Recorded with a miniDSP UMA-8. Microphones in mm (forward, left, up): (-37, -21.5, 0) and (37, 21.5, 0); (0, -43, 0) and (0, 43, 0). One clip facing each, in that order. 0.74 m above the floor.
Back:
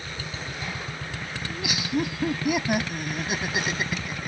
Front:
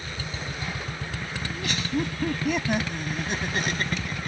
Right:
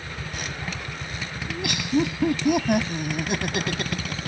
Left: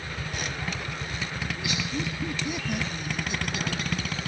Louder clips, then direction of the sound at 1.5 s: Back 1 dB, right 10 dB; 70° right.